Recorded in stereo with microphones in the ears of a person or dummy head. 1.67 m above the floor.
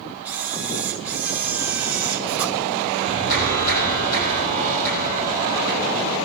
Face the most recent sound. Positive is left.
turn(degrees=55)  # may be behind; listen again after turning